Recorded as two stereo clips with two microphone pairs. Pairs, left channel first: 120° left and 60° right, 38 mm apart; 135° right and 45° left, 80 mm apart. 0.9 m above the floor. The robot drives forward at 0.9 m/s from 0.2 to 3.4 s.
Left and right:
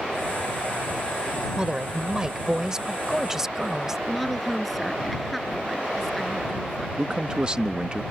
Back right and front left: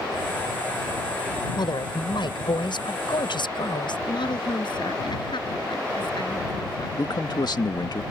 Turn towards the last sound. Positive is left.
turn(degrees=-120)